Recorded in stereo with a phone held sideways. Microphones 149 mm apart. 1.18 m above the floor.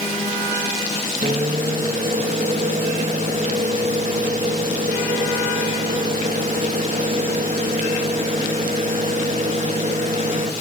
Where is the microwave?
55° right (ahead or behind), 1.2 m.